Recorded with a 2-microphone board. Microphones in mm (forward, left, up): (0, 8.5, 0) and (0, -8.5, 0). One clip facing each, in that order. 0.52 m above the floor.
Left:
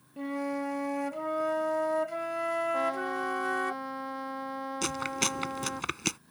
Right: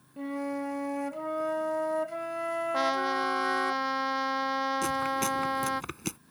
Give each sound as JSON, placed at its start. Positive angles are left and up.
{"t": 0.2, "sound": "a flute", "side_deg": 10}
{"t": 2.7, "sound": "a trumpet", "side_deg": -90}
{"t": 4.8, "sound": "chewing", "side_deg": 40}